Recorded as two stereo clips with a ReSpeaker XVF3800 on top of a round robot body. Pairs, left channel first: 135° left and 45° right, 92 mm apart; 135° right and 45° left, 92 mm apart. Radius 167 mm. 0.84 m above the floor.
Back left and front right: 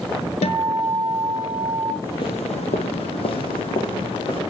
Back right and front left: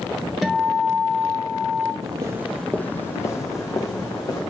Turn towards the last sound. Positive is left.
turn(degrees=175)